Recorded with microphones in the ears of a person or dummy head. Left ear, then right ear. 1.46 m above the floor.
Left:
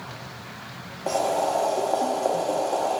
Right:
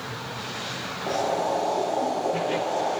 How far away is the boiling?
About 1.6 m.